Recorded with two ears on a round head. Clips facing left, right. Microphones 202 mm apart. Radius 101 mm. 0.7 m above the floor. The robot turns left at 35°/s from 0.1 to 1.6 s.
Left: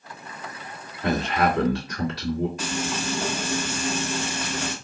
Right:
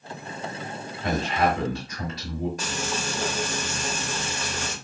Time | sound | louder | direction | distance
1.0 | a man speaking | left 1 dB | 50° left (ahead or behind) | 1.8 m
2.6 | frying | left 2 dB | 35° right (ahead or behind) | 2.0 m